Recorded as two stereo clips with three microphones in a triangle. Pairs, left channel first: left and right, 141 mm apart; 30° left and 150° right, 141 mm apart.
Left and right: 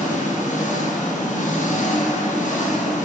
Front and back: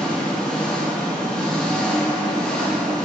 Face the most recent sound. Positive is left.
turn(degrees=115)